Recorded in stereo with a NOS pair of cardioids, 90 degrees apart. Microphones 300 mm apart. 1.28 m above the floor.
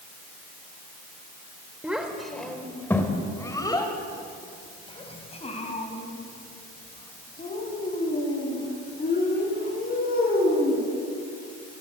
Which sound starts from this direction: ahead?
A child speaking, at 1.8 s.